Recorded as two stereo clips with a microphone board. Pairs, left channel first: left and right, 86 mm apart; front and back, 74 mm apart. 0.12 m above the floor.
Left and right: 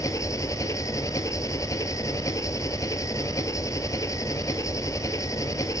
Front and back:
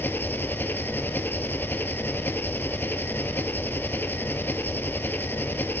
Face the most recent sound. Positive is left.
turn(degrees=55)